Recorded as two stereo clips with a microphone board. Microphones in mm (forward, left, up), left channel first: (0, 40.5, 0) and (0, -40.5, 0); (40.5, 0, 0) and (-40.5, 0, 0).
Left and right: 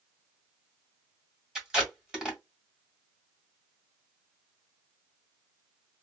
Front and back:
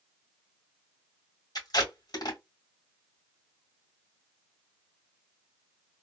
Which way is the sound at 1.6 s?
10° right.